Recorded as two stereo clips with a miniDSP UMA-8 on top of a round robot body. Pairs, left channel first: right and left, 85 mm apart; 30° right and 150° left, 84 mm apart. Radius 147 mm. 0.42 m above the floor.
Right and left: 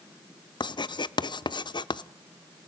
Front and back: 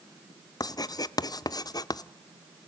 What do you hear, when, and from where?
0.6 s writing: 70° right, 0.7 m